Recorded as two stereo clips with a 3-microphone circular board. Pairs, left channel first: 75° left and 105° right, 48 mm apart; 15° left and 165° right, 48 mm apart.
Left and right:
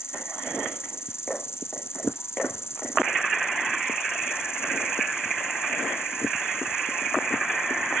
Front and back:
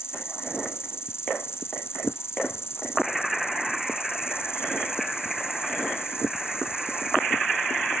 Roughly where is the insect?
Ahead left.